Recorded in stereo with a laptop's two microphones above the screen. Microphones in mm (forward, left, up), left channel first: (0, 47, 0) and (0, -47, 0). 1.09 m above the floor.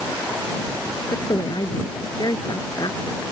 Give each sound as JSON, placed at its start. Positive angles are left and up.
{"t": 1.1, "sound": "a woman speaking", "side_deg": 45}